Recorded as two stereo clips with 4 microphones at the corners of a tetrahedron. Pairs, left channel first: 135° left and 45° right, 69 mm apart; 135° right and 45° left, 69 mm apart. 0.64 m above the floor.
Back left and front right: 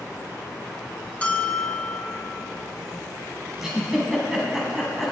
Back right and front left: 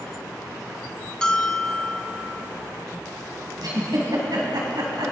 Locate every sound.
1.2 s a bell: 165° left, 1.1 m
3.6 s a giggle: 40° left, 3.5 m